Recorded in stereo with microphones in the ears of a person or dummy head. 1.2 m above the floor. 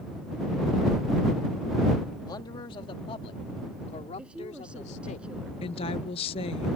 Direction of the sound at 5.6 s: 30° left (ahead or behind).